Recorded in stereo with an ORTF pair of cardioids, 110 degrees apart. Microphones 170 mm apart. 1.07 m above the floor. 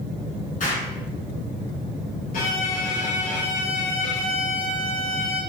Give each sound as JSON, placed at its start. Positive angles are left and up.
{"t": 0.6, "sound": "an explosion", "azimuth_deg": 50, "distance_m": 6.0}
{"t": 2.3, "sound": "a violin", "azimuth_deg": 55, "distance_m": 4.5}